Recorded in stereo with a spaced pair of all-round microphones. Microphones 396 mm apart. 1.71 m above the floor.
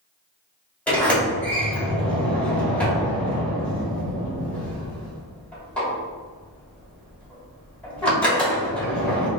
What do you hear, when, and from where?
0.9 s a sliding door: 5° left (ahead or behind), 1.6 m